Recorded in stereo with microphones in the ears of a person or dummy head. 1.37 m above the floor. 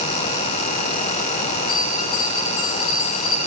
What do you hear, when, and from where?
1.7 s a bell: 80° left, 10 m